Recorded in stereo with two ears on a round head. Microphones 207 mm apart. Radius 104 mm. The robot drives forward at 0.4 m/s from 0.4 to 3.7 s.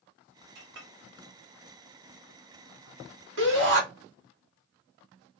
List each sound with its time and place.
0.6 s a clink: 50° right (ahead or behind), 1.0 m; by 0.9 s 55° right (ahead or behind), 1.0 m
3.4 s a shout: 60° right (ahead or behind), 1.8 m; by 3.8 s 55° right (ahead or behind), 1.9 m